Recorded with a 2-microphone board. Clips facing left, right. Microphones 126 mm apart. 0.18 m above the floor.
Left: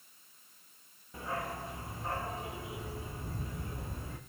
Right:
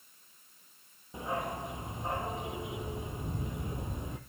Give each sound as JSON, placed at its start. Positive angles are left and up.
{"t": 1.1, "sound": "a dog barking", "side_deg": -20, "distance_m": 1.8}